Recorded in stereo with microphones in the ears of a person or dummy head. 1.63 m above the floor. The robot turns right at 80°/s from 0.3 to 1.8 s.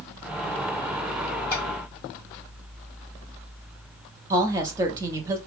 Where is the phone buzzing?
No phone buzzing in this recording.